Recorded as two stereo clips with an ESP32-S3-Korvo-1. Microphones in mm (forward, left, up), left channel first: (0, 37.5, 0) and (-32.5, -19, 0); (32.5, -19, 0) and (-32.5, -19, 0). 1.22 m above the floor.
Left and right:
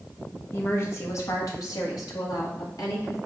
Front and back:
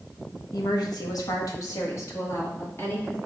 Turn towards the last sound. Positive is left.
turn(degrees=60)